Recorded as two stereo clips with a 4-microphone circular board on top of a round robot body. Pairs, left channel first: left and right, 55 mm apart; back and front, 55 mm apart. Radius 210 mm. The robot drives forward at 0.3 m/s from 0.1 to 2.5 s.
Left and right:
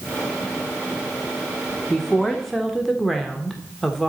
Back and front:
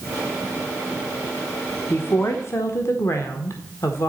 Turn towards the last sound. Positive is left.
turn(degrees=175)